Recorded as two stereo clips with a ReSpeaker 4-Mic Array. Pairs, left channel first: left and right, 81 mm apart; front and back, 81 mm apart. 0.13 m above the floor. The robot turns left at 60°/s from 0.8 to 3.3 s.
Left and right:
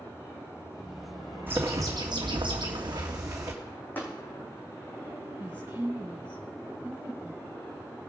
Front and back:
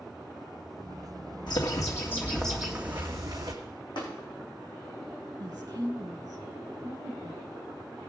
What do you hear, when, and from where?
1.5 s a bird: 25° right, 2 m; by 3.5 s 135° right, 2 m
4.0 s tapping: 20° left, 4 m
5.4 s a woman speaking: 140° right, 3 m